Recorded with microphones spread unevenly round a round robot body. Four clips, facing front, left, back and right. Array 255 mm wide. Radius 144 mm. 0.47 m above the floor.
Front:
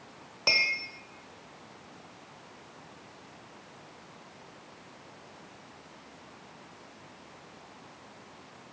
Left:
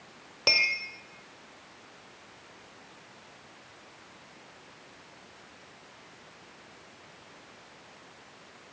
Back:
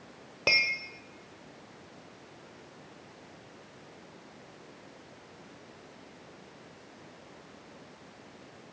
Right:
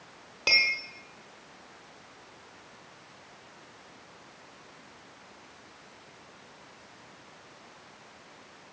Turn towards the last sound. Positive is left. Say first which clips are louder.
# even, back 1 dB
turn(degrees=165)